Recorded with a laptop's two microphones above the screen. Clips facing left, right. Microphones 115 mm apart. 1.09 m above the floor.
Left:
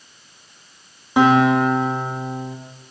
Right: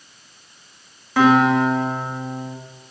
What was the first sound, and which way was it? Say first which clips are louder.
A guitar: even; 20° left (ahead or behind).